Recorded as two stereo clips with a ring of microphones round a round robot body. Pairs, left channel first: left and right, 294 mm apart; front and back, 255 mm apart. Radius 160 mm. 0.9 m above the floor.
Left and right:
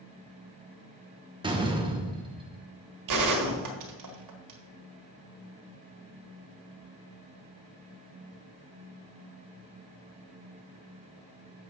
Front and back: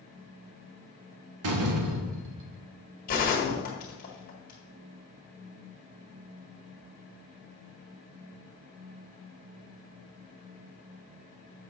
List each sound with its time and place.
1.4 s a door slam: 165° right, 1.1 m
3.1 s a gunshot: 65° right, 1.6 m